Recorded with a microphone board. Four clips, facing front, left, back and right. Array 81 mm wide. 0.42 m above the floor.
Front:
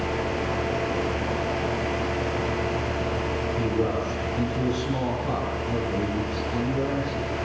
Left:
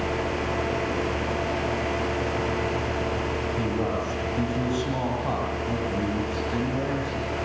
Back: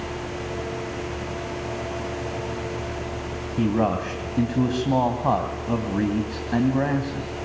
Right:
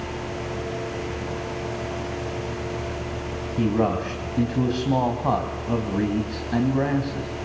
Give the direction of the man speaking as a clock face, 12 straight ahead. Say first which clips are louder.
Right 9 dB, back 5 dB; 5 o'clock.